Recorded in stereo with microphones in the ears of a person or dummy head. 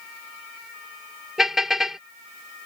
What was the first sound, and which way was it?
A car horn, 5° right (ahead or behind).